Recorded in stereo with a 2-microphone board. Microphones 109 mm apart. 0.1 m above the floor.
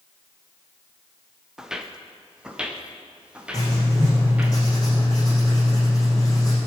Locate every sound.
1.6 s footsteps: 5° right (ahead or behind), 1.7 m; by 4.5 s 10° right (ahead or behind), 3.5 m
3.5 s writing: 35° left (ahead or behind), 6 m